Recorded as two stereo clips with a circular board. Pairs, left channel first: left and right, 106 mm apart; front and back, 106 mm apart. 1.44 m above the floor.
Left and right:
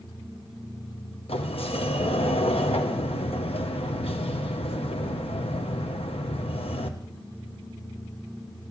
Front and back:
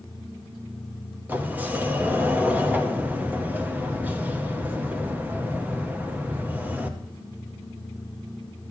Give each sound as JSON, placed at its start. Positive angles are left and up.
{"t": 1.3, "sound": "a sliding door", "azimuth_deg": 105, "distance_m": 1.0}